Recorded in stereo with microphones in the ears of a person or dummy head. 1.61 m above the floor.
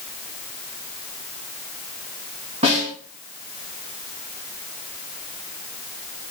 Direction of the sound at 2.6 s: 30° right (ahead or behind).